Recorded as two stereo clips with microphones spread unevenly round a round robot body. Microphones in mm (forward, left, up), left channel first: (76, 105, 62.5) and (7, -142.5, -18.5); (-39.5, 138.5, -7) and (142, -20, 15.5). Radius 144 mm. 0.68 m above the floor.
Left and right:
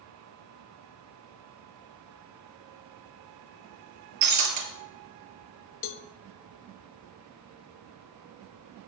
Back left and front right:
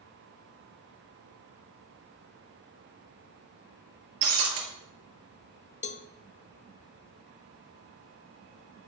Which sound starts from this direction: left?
A cowbell, at 5.8 s.